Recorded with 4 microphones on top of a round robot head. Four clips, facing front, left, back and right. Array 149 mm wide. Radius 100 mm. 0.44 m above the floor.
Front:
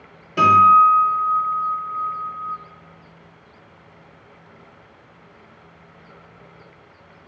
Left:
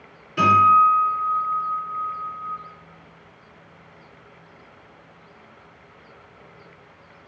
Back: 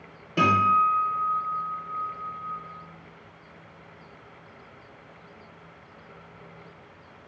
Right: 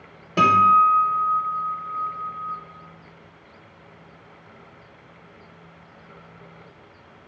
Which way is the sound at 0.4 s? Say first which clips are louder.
Left 1 dB, front 9 dB; 85° right.